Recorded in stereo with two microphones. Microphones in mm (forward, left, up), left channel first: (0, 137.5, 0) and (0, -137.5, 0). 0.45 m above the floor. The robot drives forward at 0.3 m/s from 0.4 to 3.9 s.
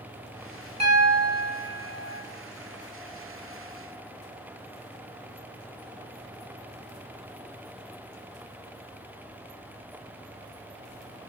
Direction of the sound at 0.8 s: 65° right (ahead or behind).